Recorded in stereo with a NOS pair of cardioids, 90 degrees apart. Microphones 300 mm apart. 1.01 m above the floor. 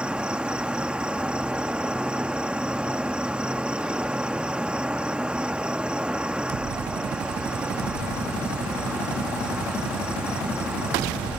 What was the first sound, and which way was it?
An insect, 5° right.